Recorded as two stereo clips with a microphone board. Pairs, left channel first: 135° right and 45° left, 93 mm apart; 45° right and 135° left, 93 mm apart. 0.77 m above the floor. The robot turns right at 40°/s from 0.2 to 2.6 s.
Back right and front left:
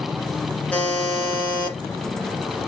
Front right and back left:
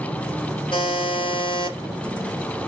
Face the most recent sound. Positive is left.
turn(degrees=15)